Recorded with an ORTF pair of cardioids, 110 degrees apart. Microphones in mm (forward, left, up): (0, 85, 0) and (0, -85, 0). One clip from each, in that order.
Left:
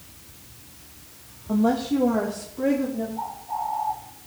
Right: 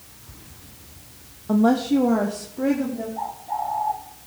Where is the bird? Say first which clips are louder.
Right 4 dB; 50° right, 6 m.